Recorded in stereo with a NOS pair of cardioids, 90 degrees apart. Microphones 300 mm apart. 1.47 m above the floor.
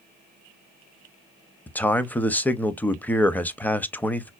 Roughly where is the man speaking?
Ahead.